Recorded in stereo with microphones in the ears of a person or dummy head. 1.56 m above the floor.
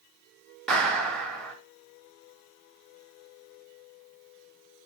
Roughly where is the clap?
Centre.